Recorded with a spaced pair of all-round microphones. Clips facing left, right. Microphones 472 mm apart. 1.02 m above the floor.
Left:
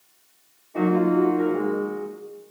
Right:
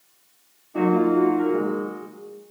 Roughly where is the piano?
Right.